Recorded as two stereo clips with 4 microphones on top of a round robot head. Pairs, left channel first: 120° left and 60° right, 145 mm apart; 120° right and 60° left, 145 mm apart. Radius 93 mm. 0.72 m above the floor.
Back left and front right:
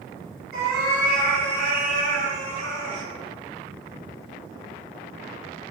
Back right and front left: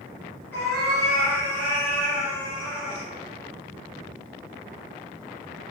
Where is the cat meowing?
45° right, 1.7 m; by 3.0 s 30° left, 2.5 m.